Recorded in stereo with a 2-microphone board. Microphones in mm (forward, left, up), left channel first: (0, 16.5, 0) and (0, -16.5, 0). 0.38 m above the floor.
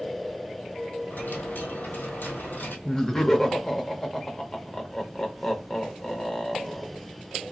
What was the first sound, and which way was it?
A dropped coin, 80° left.